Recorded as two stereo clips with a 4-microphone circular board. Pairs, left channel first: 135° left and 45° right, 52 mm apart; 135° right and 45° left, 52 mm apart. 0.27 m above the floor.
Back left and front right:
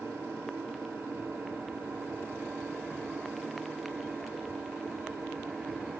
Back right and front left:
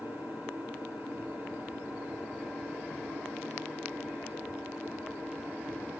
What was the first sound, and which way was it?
An engine running, straight ahead.